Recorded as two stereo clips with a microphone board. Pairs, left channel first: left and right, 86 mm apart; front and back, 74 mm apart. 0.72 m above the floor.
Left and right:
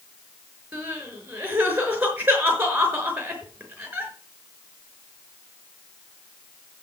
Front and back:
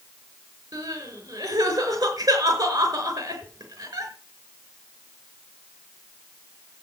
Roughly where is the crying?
Behind.